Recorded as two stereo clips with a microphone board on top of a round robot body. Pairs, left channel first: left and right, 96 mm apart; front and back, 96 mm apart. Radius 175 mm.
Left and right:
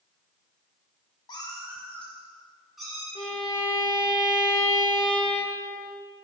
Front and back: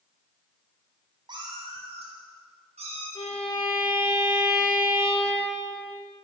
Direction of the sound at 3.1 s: 40° left.